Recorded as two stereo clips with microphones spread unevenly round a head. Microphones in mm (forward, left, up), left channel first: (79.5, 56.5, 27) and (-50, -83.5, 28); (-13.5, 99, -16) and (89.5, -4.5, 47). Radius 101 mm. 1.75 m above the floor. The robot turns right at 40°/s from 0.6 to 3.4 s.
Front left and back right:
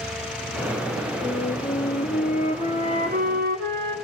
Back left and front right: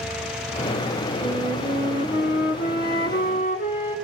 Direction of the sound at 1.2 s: 100° left.